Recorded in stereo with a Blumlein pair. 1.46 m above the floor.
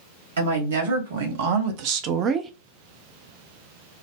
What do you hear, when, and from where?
0.4 s a woman speaking: 65° right, 1.4 m; by 2.5 s 15° right, 0.5 m